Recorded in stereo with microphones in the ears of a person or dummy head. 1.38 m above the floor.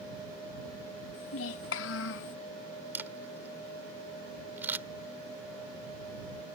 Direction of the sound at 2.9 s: 10° right (ahead or behind).